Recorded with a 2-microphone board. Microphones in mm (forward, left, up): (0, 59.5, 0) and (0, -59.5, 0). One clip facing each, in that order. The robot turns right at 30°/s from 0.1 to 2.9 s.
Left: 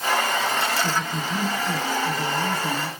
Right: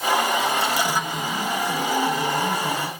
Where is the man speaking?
105° left, 7.5 m; by 2.9 s 165° left, 7.5 m.